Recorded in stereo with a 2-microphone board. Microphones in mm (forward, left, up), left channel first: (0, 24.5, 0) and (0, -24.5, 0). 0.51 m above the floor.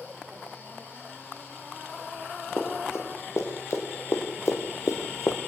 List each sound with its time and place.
2.6 s running footsteps: 70° left (ahead or behind), 6.5 m; by 5.4 s 65° left (ahead or behind), 2.5 m